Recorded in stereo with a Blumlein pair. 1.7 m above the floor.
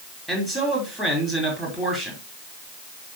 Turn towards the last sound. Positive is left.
turn(degrees=0)